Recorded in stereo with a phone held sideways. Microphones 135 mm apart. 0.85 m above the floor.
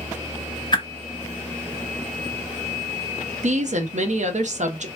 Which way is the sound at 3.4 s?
60° right (ahead or behind).